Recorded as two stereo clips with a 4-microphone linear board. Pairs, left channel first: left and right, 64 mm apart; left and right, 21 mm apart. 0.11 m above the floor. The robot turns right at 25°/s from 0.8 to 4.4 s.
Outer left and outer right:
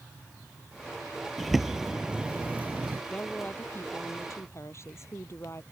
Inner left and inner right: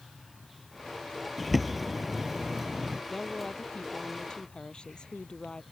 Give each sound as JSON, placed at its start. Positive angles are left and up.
{"t": 1.4, "sound": "a bird", "azimuth_deg": 175}
{"t": 3.1, "sound": "a woman speaking", "azimuth_deg": 20}